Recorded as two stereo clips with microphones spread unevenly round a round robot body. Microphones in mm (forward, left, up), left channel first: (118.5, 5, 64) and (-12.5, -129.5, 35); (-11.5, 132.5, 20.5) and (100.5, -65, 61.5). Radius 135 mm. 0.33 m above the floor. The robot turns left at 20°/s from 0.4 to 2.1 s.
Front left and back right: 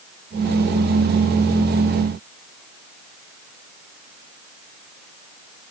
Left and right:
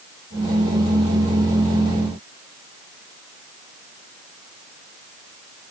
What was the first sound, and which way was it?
Only background noise.